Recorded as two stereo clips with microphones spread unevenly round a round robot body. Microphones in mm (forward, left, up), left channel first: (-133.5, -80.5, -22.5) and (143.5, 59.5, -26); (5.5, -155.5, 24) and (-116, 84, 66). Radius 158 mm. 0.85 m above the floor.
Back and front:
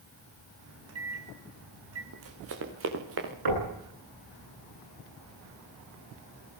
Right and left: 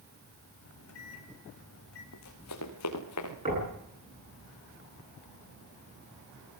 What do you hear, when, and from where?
0.6 s a microwave: 20° right, 4.5 m
2.1 s running footsteps: 20° right, 4.5 m; by 3.3 s 25° right, 5.5 m
3.5 s knocking: 45° left, 10 m